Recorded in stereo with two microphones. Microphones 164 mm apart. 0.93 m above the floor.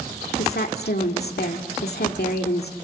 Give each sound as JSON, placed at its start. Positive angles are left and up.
{"t": 0.4, "sound": "a woman speaking", "side_deg": 75, "distance_m": 2.0}